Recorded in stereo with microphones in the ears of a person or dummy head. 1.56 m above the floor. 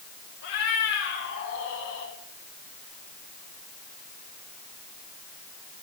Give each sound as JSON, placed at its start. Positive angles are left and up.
{"t": 0.4, "sound": "a cat meowing", "side_deg": 60, "distance_m": 4.0}